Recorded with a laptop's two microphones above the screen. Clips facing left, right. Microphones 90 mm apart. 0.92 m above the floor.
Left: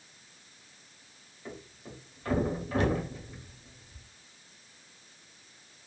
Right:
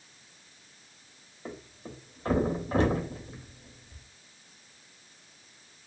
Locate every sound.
1.4 s a thud: 30° right (ahead or behind), 0.7 m